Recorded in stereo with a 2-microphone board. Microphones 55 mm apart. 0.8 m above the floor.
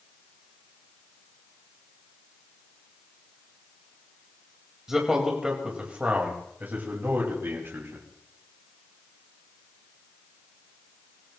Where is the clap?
No clap in this recording.